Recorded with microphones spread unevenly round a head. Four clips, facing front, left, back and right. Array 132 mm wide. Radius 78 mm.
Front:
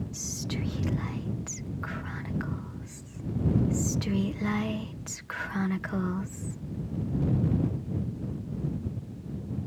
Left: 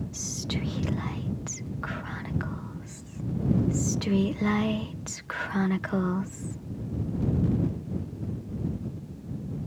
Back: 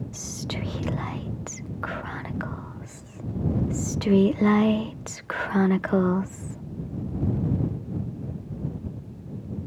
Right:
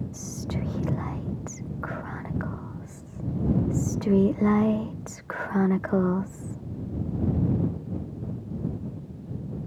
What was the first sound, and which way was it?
Whispering, 145° right.